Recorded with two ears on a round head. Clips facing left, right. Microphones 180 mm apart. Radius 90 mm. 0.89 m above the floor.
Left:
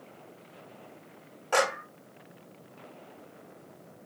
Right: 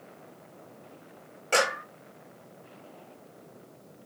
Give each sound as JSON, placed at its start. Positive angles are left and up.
{"t": 1.5, "sound": "a clap", "side_deg": -30, "distance_m": 5.0}